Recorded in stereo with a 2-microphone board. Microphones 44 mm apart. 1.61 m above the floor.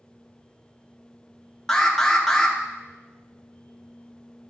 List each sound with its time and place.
1.7 s an alarm: 10° left (ahead or behind), 1.0 m